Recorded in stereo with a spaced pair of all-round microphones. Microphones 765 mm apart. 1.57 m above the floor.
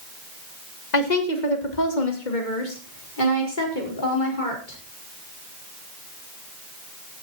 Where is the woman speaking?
65° left (ahead or behind), 2.5 m; by 4.8 s 85° left, 6 m.